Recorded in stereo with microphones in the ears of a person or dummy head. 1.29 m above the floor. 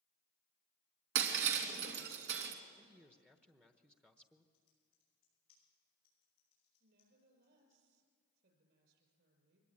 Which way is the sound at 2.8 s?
10° right (ahead or behind).